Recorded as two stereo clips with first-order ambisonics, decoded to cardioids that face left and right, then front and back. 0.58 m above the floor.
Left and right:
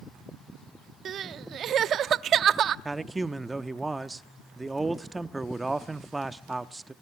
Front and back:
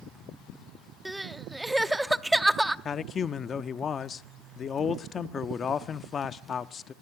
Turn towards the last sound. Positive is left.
turn(degrees=-20)